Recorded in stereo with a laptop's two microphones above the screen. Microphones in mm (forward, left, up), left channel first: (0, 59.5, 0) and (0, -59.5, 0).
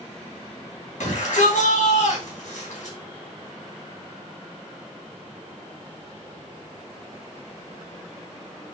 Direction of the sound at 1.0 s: 70° left (ahead or behind).